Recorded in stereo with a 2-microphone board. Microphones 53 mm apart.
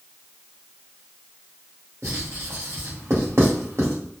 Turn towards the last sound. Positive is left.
turn(degrees=-65)  # may be behind; listen again after turning